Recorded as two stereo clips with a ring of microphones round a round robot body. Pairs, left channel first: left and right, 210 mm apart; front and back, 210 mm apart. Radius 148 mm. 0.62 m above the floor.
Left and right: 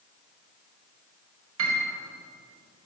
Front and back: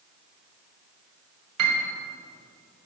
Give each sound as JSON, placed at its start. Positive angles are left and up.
{"t": 1.6, "sound": "a piano", "azimuth_deg": -140, "distance_m": 1.8}